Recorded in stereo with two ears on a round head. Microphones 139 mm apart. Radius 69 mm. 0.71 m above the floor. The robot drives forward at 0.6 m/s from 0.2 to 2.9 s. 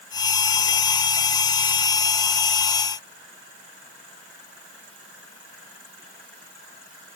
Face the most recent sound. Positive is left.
No sound to turn to.